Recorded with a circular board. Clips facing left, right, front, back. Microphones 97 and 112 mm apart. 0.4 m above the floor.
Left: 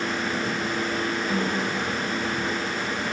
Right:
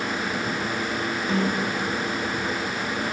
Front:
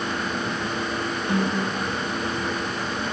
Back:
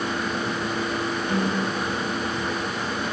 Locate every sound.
1.3 s a snare drum: 35° right, 4 m